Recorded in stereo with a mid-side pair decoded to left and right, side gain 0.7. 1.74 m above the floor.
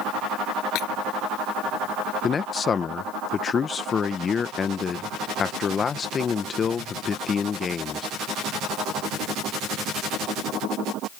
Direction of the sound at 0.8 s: 60° left.